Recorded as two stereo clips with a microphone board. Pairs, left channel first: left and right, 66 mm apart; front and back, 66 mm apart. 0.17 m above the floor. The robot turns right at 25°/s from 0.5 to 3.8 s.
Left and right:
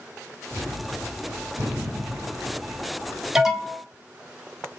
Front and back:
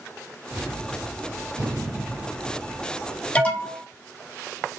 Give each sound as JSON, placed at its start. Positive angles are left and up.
{"t": 0.5, "sound": "a gunshot", "azimuth_deg": -175, "distance_m": 2.0}
{"t": 3.4, "sound": "an alarm", "azimuth_deg": -20, "distance_m": 0.8}